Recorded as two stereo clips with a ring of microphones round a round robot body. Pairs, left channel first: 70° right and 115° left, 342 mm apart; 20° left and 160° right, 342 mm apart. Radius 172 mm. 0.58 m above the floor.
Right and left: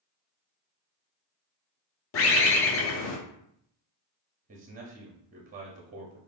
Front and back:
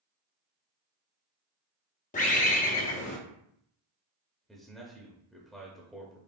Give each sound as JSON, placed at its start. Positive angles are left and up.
{"t": 2.1, "sound": "a bird", "azimuth_deg": -35, "distance_m": 0.7}
{"t": 4.5, "sound": "a man speaking", "azimuth_deg": 110, "distance_m": 0.7}